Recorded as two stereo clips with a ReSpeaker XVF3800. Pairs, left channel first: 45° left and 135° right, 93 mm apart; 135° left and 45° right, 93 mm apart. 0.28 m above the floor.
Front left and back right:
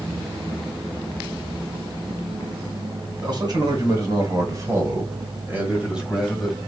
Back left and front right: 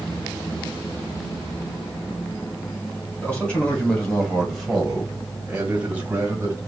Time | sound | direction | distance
3.2 | a man speaking | 150° right | 2 m